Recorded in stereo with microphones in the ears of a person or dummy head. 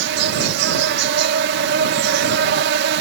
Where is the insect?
70° right (ahead or behind).